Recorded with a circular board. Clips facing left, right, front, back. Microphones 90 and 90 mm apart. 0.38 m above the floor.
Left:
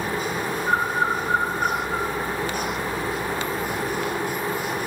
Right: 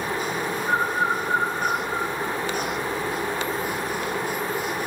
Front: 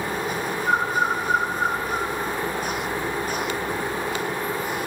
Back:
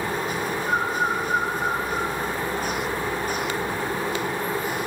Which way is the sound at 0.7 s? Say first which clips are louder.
Left 1 dB, front 3 dB; 50° left.